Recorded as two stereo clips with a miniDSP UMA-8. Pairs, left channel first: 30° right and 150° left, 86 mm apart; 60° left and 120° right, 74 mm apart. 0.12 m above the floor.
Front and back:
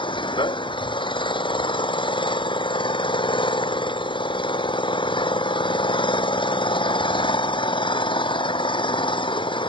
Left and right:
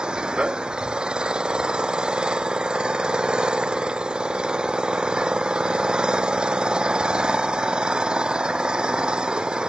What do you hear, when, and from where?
0.0 s an engine running: 45° right